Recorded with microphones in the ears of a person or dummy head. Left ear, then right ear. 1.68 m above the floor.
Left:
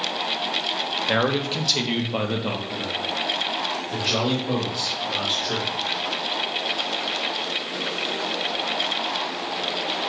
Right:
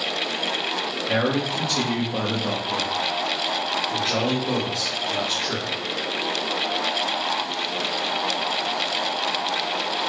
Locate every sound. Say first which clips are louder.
1.1 s a man speaking: even; 70° left (ahead or behind), 0.9 m; by 5.7 s 40° right (ahead or behind), 2.5 m